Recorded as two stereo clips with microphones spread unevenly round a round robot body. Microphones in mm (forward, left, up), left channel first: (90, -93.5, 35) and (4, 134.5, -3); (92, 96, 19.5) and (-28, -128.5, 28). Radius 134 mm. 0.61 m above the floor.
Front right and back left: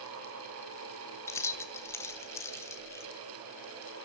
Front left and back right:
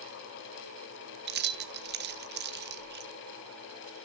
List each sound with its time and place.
1.3 s keys jangling: 155° right, 0.7 m